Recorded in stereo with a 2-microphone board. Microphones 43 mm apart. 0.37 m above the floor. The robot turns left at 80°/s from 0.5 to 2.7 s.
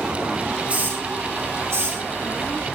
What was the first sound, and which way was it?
A hiss, 25° right (ahead or behind).